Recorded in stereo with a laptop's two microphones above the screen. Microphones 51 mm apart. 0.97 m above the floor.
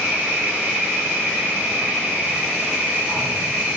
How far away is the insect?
About 0.9 m.